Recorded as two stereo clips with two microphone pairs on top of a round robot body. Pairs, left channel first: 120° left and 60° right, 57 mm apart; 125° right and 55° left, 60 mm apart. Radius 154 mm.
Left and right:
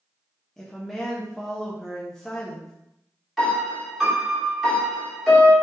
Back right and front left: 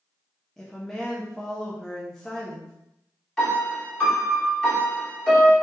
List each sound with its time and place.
0.6 s a woman speaking: 150° right, 0.8 m
3.4 s a piano: 145° right, 1.6 m